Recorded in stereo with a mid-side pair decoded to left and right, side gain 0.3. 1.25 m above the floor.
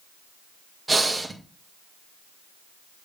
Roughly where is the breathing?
Ahead right.